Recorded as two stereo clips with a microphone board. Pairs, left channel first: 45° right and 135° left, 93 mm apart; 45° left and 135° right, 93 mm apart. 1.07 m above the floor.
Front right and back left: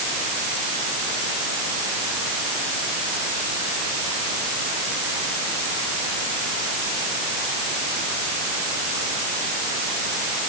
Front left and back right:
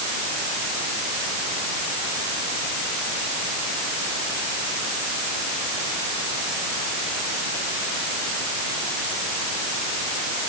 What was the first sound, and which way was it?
Only background noise.